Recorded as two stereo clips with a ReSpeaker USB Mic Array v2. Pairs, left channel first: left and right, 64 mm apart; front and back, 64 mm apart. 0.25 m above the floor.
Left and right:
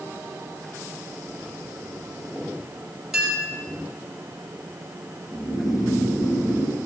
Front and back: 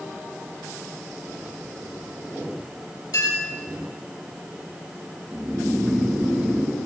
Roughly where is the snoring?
Left.